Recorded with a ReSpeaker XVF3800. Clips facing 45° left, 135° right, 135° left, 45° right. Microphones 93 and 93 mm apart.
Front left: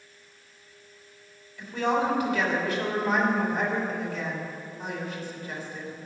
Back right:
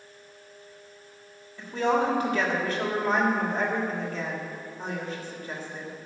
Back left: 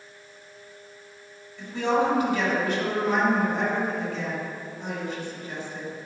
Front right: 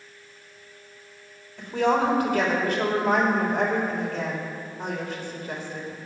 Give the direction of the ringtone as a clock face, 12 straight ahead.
No ringtone in this recording.